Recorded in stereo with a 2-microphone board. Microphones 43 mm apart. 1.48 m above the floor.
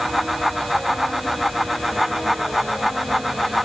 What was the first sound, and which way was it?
Only background noise.